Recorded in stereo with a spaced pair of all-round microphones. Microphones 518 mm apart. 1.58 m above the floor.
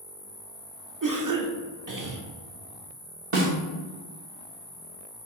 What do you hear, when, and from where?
0.0 s an insect: 10° left (ahead or behind), 0.8 m
1.0 s a cough: 35° right (ahead or behind), 0.8 m
3.3 s a snare drum: 75° right (ahead or behind), 1.0 m